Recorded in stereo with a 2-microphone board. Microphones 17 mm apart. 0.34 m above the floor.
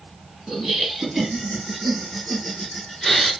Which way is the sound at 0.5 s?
30° right (ahead or behind).